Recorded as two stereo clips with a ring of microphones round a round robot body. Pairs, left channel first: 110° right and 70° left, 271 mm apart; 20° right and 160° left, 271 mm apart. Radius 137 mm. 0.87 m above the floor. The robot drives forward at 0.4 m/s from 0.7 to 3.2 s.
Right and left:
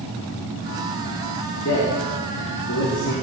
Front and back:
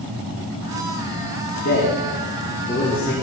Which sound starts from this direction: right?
A man speaking, at 1.6 s.